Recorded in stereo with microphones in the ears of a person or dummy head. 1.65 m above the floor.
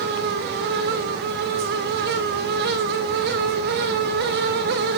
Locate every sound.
Only background noise.